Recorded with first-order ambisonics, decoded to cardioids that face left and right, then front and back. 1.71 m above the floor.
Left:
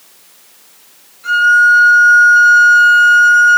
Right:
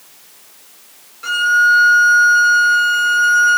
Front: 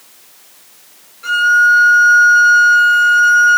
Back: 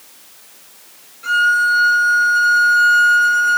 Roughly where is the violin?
Right.